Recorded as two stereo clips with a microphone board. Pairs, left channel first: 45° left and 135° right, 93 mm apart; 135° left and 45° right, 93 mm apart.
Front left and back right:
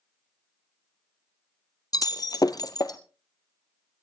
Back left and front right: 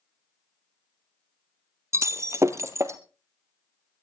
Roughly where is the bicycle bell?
I don't hear a bicycle bell.